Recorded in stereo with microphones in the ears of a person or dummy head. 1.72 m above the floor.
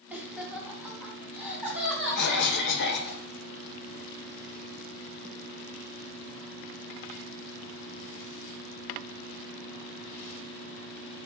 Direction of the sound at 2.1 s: 60° left (ahead or behind).